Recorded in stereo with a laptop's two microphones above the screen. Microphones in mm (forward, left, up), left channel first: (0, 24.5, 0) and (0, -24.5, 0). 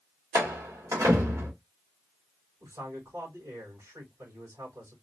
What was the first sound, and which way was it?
A door slam, 85° right.